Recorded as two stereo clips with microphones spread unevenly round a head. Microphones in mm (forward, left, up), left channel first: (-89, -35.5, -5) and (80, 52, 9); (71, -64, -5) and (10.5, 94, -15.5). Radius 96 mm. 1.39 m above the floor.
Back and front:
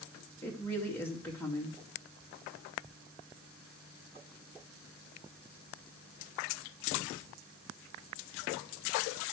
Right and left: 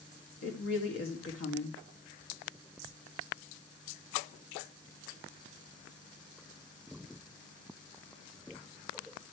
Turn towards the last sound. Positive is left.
turn(degrees=-70)